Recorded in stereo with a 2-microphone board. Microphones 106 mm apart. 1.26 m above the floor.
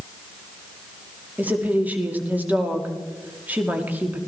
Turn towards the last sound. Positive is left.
turn(degrees=-15)  # may be behind; listen again after turning